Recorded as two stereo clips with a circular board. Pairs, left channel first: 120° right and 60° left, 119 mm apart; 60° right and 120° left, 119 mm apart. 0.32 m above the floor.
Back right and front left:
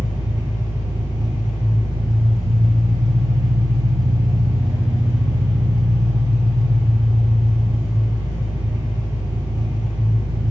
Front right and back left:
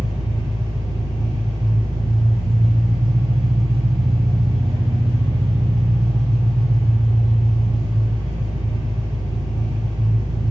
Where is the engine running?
85° left, 1.0 m.